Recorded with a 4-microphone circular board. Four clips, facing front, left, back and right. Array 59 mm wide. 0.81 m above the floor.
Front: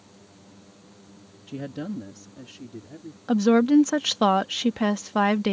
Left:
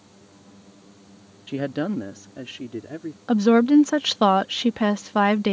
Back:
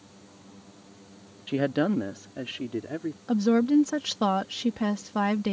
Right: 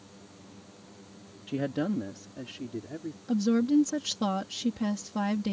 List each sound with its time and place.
1.5 s a woman speaking: 155° left; by 3.2 s 150° left
3.3 s a woman speaking: 65° left